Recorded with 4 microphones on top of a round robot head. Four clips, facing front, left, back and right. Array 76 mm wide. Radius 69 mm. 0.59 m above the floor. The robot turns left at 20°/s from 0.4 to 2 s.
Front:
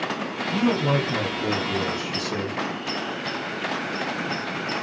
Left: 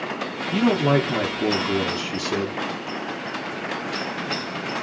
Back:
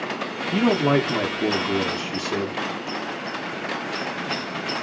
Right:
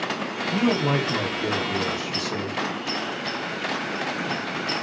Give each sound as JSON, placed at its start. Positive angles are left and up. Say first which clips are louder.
{"t": 0.5, "sound": "a man speaking", "louder": "left 3 dB, back 3 dB", "azimuth_deg": 155, "distance_m": 0.7}